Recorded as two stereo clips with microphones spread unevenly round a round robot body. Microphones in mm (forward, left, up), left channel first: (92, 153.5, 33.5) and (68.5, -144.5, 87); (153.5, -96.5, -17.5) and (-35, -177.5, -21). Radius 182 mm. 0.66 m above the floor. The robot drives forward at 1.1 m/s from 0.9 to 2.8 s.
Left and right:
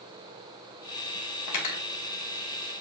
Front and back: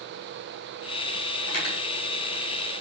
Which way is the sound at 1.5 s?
60° left.